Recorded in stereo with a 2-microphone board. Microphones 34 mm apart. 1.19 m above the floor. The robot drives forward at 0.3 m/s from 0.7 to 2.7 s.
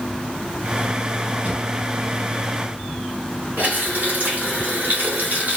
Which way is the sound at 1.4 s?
40° right (ahead or behind).